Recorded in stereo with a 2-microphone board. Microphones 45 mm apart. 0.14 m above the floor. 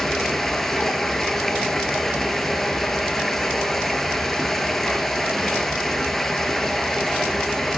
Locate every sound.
0.0 s running water: 5° left (ahead or behind), 1.0 m